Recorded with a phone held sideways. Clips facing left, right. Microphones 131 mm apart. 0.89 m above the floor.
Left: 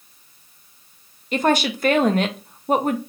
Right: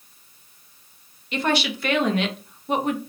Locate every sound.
1.3 s a woman speaking: 40° left (ahead or behind), 0.6 m